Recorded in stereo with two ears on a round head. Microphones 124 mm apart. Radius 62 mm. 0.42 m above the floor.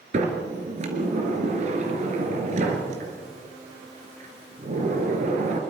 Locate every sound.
0.1 s a sliding door: 55° right (ahead or behind), 3 m